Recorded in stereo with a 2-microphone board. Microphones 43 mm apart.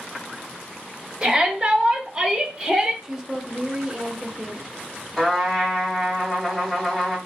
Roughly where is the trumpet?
Centre.